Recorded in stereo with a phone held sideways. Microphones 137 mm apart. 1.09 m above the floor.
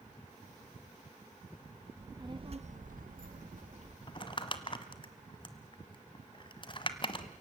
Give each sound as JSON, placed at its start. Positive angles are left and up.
{"t": 2.0, "sound": "a child speaking", "side_deg": -20, "distance_m": 1.3}
{"t": 4.1, "sound": "crumpling", "side_deg": 40, "distance_m": 1.2}